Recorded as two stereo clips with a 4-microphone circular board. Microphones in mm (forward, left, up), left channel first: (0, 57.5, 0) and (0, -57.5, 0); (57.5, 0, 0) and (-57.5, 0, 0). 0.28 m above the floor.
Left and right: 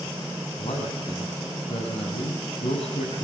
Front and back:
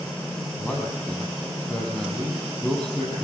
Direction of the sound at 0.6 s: 80° left.